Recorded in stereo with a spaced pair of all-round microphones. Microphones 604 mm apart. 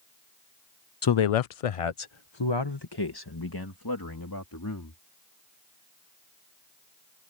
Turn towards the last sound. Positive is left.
turn(degrees=30)  # may be behind; listen again after turning